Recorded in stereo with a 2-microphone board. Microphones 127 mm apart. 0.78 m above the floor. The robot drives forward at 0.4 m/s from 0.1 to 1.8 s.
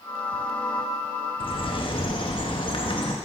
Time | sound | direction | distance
1.4 | a bird | 45° left (ahead or behind) | 0.6 m